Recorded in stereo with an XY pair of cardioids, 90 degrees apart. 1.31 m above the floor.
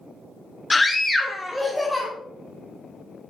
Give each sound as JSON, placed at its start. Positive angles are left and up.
{"t": 0.7, "sound": "a scream", "azimuth_deg": 25, "distance_m": 0.5}